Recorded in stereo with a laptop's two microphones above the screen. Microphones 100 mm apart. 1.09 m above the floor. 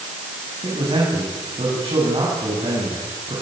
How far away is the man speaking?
About 9 m.